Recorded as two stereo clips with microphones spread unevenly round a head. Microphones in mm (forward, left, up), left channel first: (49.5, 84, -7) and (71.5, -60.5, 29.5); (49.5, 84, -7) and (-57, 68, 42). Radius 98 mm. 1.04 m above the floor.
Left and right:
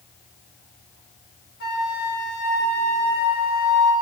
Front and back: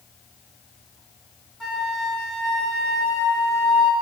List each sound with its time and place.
1.6 s a flute: 100° left, 2 m